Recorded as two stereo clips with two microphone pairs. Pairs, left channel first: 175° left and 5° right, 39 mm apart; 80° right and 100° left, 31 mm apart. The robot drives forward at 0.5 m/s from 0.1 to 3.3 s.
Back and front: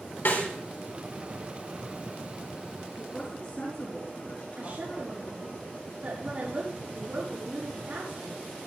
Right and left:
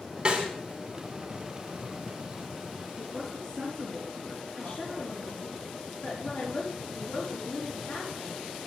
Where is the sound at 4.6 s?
65° right, 5.5 m.